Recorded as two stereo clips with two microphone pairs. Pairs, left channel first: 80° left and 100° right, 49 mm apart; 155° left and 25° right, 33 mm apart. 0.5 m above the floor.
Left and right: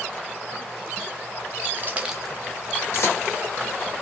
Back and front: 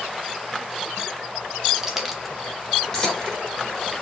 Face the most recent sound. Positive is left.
turn(degrees=80)